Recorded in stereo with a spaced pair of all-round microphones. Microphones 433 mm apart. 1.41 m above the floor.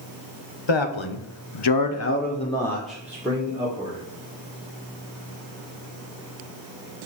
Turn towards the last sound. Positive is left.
turn(degrees=-15)  # may be behind; listen again after turning